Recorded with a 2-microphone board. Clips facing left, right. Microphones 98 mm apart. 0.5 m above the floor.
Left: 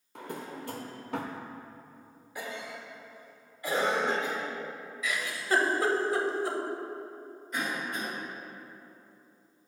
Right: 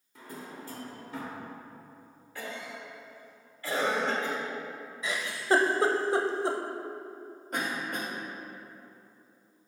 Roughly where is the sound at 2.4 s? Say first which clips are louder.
Left 1 dB; centre.